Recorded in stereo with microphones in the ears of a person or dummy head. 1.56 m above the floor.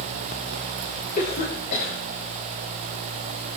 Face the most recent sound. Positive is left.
turn(degrees=50)  # may be behind; listen again after turning